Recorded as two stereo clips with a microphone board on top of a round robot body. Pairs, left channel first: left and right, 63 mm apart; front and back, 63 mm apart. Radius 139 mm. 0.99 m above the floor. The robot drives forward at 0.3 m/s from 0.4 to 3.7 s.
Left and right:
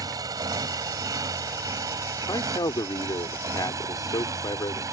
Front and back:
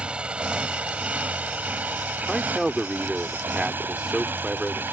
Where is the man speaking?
90° left; by 4.8 s 95° left.